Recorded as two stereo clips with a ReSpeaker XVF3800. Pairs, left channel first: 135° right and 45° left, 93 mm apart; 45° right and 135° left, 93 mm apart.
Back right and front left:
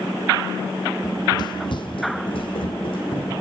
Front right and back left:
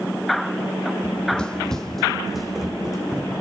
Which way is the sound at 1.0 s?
115° right.